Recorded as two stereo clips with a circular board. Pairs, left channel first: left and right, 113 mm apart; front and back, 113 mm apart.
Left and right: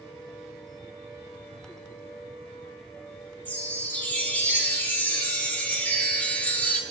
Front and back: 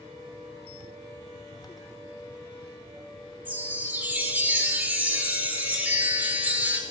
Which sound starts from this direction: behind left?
A chime, at 3.5 s.